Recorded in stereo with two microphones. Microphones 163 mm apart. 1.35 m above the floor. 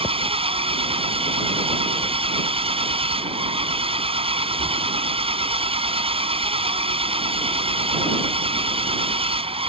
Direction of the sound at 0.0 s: 35° right (ahead or behind).